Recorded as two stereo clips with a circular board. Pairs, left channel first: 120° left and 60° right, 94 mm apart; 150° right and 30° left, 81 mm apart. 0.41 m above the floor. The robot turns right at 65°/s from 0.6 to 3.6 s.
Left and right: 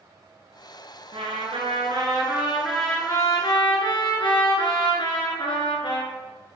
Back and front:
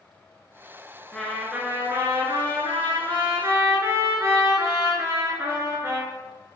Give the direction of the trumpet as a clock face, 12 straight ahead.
2 o'clock.